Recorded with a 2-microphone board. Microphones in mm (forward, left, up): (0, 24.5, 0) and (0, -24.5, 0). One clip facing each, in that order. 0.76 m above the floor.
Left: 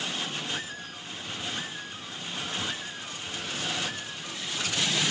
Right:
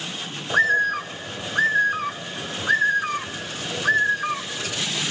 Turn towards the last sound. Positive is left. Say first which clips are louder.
# right 18 dB
turn(degrees=-75)  # may be behind; listen again after turning